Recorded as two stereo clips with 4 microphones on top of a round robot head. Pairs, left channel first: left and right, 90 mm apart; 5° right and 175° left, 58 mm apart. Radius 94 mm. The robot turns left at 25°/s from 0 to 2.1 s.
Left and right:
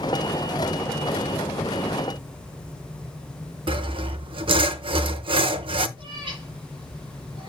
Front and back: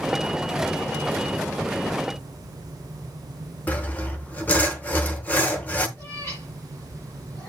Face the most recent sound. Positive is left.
turn(degrees=-55)